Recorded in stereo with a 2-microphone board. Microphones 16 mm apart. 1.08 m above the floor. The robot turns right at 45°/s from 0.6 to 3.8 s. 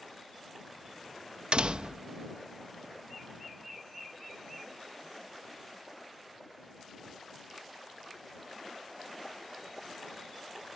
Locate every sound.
1.5 s a door slam: 80° right; by 2.1 s 55° right (ahead or behind)